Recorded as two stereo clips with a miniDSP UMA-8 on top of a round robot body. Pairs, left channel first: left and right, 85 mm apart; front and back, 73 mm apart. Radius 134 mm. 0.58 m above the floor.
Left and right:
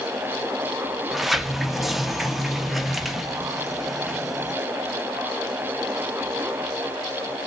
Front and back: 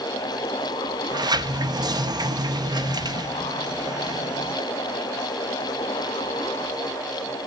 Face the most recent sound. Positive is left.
turn(degrees=180)